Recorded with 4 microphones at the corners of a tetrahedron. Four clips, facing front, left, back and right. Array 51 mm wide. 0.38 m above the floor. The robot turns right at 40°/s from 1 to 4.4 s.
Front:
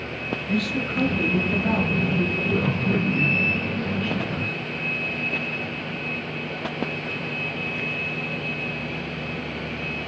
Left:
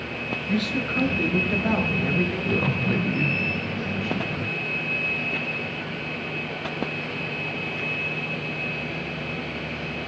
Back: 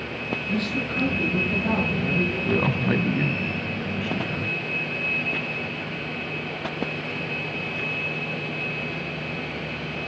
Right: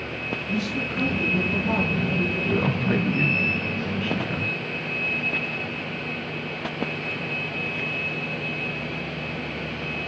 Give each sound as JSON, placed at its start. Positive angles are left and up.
{"t": 0.5, "sound": "a man speaking", "azimuth_deg": 55, "distance_m": 6.5}
{"t": 2.5, "sound": "a man speaking", "azimuth_deg": 180, "distance_m": 3.0}